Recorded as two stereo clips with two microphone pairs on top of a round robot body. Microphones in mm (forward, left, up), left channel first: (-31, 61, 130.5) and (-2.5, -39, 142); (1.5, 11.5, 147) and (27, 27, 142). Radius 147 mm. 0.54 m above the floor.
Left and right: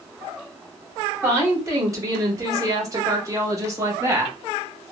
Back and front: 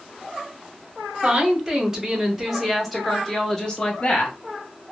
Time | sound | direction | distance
1.2 | a woman speaking | 10° right | 1.7 m